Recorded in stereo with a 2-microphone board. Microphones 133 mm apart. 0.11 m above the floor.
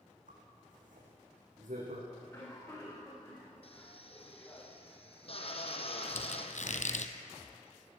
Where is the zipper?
75° right (ahead or behind), 6 m.